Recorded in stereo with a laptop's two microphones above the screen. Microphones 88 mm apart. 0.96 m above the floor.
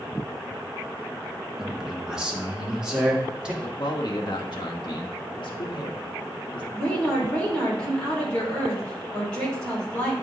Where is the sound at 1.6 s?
5° right (ahead or behind), 1.4 m; by 3.5 s 10° right (ahead or behind), 3 m.